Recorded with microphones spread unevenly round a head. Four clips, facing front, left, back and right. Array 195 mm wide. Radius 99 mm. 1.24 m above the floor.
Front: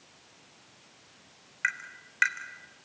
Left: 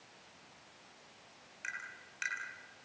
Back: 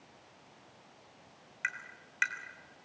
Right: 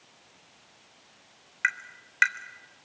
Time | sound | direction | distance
1.6 | tapping | 70° right | 3.5 m